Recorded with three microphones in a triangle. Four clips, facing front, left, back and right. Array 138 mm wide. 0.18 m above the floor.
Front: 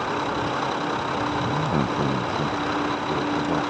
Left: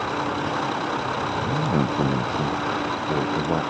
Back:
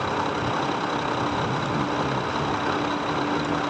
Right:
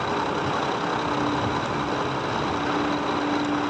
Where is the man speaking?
55° left; by 3.6 s 75° left.